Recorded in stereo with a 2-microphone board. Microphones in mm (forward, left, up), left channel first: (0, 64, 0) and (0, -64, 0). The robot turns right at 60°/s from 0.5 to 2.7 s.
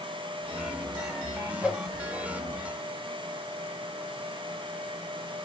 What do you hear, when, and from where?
1.6 s a whoosh: 10° right (ahead or behind), 2 m; by 1.8 s 5° left (ahead or behind), 2 m